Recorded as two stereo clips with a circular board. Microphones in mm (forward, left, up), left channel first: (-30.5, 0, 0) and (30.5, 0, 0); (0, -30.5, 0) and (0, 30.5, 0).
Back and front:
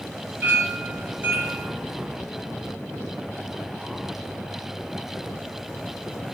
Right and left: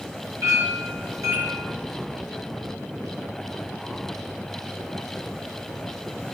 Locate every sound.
0.4 s a clink: 65° left, 5.5 m